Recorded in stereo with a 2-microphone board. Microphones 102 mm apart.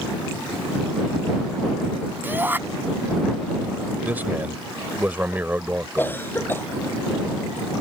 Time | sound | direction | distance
2.2 | a shout | 20° right (ahead or behind) | ?
4.0 | a man speaking | 15° right (ahead or behind) | ?
6.0 | a cough | 20° left (ahead or behind) | ?